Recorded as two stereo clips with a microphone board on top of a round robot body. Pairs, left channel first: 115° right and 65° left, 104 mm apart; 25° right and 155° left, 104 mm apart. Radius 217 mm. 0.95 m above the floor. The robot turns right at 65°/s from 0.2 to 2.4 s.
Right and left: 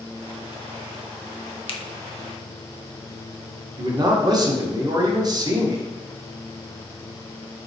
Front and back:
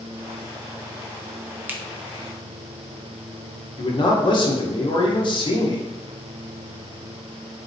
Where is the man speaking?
15° left, 0.9 m.